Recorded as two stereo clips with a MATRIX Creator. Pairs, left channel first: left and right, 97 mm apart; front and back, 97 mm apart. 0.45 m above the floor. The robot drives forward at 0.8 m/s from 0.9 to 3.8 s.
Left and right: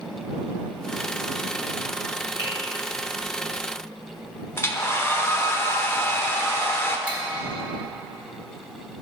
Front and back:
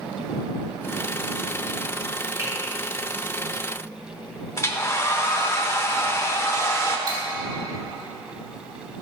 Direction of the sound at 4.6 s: 40° left.